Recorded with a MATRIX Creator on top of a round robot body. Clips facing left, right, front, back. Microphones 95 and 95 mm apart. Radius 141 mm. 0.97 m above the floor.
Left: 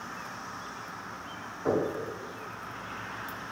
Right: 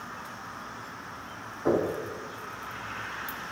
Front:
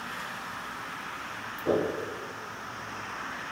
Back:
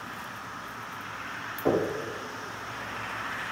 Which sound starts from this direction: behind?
Knocking, at 1.6 s.